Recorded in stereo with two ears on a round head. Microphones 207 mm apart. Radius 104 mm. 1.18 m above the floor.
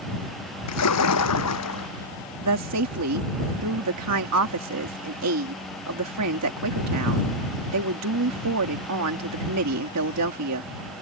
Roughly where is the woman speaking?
Right.